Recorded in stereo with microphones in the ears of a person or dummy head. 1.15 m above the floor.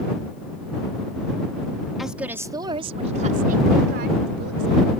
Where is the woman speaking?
5° right (ahead or behind); by 4.9 s 75° right (ahead or behind).